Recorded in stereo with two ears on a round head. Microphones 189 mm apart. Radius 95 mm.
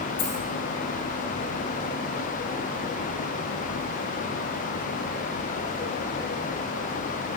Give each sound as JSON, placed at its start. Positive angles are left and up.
{"t": 0.2, "sound": "a dropped coin", "side_deg": 40, "distance_m": 3.0}